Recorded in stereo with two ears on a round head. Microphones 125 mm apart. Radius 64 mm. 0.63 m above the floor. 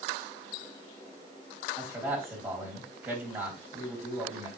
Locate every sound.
1.8 s a man speaking: 10° right (ahead or behind), 3.5 m